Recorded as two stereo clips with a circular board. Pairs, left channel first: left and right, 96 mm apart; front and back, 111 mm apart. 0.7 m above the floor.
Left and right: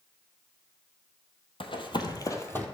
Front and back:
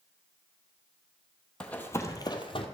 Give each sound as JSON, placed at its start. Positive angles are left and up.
{"t": 1.6, "sound": "running footsteps", "azimuth_deg": 80, "distance_m": 1.5}